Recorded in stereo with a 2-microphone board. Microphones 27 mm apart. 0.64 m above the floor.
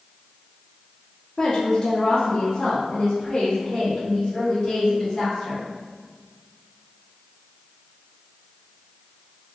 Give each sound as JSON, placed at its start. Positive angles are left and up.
{"t": 1.4, "sound": "a woman speaking", "side_deg": 25, "distance_m": 0.8}